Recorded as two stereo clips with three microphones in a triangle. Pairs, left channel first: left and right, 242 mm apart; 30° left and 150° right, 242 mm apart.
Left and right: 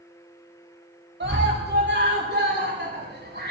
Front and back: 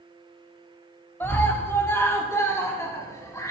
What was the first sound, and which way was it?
A scream, 50° right.